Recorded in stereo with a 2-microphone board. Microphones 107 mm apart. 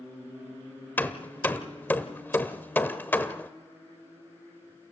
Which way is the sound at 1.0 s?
20° left (ahead or behind).